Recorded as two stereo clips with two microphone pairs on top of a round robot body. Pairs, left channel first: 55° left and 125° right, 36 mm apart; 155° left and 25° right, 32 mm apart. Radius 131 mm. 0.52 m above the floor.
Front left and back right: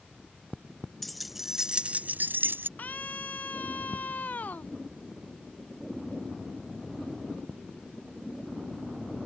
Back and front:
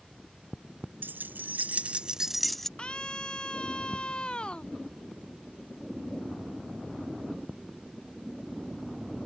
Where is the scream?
100° left.